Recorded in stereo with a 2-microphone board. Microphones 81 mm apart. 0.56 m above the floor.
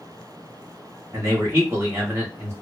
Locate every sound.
1.1 s a man speaking: 30° right (ahead or behind), 1.3 m